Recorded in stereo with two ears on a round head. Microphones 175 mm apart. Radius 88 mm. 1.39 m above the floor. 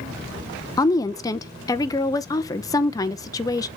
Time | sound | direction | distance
0.8 | a woman speaking | 20° left (ahead or behind) | 0.6 m